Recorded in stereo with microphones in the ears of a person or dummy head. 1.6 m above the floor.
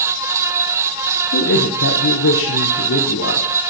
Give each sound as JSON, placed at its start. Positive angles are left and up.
{"t": 1.3, "sound": "a man speaking", "side_deg": 65, "distance_m": 1.0}